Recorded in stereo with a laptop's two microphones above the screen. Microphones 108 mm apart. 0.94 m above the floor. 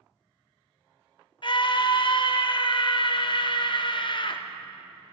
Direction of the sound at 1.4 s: 50° left (ahead or behind).